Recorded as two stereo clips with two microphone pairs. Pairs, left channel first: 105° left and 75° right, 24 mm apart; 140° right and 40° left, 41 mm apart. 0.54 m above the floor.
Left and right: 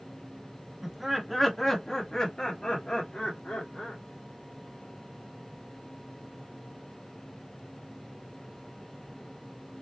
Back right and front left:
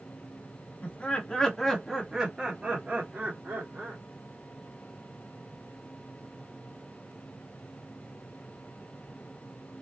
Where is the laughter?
145° right, 1.4 m; by 4.0 s 70° left, 2.5 m.